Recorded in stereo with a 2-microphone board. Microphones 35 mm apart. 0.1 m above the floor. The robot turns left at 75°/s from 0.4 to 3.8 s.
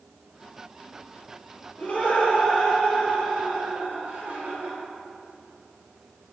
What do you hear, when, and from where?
1.8 s laughter: 70° left, 2 m; by 4.8 s 80° right, 2 m